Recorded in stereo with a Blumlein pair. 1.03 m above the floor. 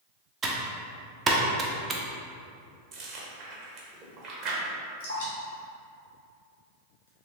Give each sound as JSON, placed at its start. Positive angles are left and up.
{"t": 0.4, "sound": "typing on a keyboard", "azimuth_deg": -20, "distance_m": 0.5}
{"t": 2.9, "sound": "chewing", "azimuth_deg": -35, "distance_m": 0.8}
{"t": 5.0, "sound": "dripping", "azimuth_deg": 65, "distance_m": 1.5}